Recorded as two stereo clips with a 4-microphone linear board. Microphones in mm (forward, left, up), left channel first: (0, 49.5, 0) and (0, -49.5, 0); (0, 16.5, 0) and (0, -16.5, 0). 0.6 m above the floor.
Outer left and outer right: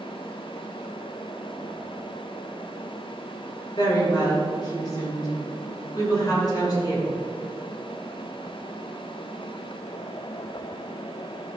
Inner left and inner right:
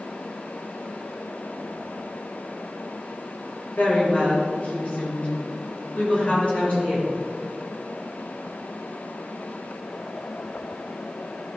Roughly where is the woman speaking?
Left.